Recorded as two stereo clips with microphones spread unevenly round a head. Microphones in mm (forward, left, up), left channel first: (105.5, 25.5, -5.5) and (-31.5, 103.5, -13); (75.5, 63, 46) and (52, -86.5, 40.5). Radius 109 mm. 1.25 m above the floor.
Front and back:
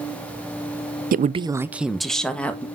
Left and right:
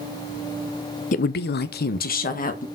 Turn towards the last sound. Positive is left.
turn(degrees=50)